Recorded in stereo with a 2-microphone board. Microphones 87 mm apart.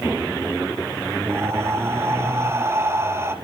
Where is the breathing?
30° right (ahead or behind), 1.0 m.